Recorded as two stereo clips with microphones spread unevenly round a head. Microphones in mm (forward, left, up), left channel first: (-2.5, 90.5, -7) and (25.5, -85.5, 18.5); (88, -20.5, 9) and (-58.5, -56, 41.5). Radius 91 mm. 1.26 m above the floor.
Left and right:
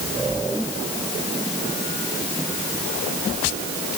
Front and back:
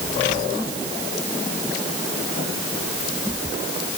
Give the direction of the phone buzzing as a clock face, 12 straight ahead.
No phone buzzing in this recording.